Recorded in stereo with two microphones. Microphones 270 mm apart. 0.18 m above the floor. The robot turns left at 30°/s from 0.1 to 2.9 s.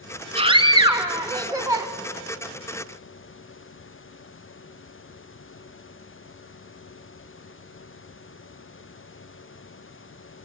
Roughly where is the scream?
Centre.